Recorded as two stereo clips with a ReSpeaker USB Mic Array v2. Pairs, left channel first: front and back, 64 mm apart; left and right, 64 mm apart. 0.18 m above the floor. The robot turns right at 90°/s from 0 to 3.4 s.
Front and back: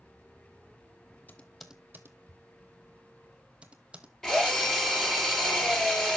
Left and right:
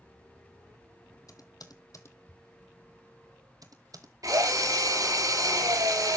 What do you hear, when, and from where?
1.3 s typing on a keyboard: 65° left, 1.1 m; by 4.1 s 105° right, 1.1 m
4.2 s a drill: 80° right, 2.5 m